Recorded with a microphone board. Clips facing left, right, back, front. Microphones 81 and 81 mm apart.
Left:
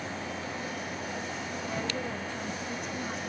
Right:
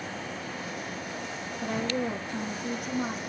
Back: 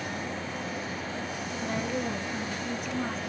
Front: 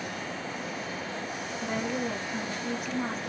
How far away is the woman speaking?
About 6 m.